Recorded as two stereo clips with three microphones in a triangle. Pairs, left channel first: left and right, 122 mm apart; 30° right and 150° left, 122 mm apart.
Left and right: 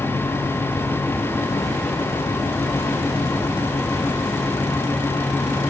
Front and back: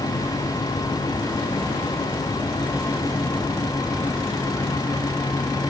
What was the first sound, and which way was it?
Only background noise.